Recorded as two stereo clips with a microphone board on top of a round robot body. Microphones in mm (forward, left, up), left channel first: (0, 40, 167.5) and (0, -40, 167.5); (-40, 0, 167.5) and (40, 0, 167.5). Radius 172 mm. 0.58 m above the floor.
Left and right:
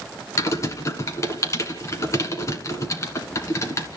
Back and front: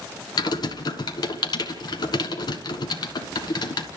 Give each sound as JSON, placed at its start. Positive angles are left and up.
{"t": 0.4, "sound": "typing on a keyboard", "azimuth_deg": 145, "distance_m": 1.3}